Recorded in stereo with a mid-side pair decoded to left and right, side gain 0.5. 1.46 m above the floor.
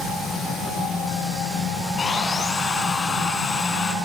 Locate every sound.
2.0 s sawing: 35° left, 5 m